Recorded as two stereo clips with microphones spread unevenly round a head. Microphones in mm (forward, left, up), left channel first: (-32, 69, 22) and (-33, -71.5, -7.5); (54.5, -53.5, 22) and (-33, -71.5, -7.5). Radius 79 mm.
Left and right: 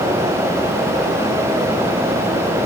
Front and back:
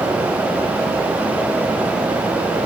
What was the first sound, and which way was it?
Only background noise.